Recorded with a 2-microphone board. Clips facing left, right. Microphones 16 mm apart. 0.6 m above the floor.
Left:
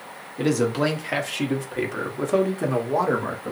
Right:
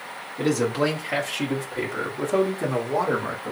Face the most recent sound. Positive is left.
turn(degrees=15)  # may be behind; listen again after turning